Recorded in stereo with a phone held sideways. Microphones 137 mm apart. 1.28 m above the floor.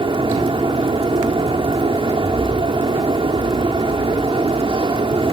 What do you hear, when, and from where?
0.0 s a fan: 40° right (ahead or behind)